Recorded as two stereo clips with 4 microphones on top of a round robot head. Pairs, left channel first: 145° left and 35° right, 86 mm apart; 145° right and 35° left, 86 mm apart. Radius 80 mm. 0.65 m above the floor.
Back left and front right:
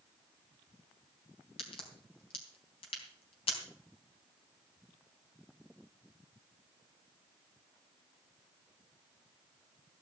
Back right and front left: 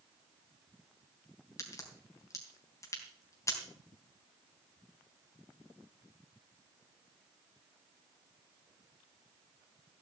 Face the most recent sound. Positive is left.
turn(degrees=160)